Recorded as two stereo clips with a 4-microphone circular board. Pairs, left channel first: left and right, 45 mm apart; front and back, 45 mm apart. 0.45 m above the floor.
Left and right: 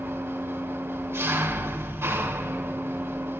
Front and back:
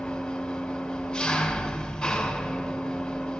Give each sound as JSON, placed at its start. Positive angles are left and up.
{"t": 0.0, "sound": "an engine running", "azimuth_deg": -80, "distance_m": 3.5}